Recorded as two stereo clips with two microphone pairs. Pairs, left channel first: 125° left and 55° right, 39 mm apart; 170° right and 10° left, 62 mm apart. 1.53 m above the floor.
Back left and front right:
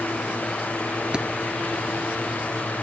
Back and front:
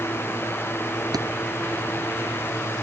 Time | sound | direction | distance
1.1 | a thud | 15° left | ?